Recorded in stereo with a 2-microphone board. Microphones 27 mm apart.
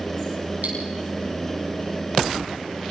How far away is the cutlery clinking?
About 7.5 m.